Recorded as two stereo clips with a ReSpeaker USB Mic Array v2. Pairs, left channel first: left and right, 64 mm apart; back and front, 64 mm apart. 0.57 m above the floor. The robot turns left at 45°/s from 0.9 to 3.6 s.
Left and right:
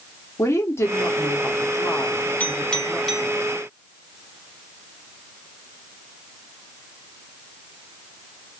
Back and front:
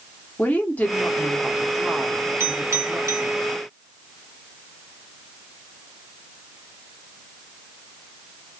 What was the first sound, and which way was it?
A woman speaking, 120° left.